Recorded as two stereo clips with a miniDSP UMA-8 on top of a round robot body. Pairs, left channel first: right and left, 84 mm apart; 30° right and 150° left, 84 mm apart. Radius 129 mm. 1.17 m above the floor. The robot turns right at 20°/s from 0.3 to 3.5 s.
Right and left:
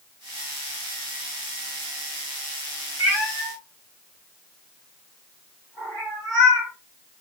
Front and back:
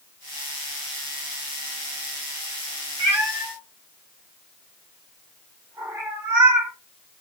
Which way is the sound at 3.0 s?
155° right.